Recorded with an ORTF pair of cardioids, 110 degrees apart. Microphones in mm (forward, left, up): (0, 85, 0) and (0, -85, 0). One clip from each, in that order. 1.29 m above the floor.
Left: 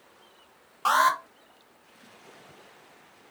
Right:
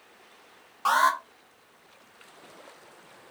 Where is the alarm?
10° left, 0.7 m.